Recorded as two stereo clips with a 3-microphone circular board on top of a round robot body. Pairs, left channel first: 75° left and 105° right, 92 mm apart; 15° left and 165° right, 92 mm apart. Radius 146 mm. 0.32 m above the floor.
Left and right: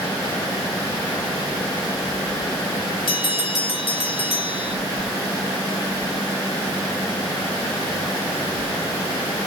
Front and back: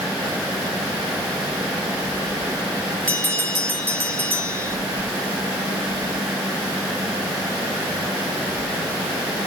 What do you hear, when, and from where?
3.1 s a bell: 85° left, 3.5 m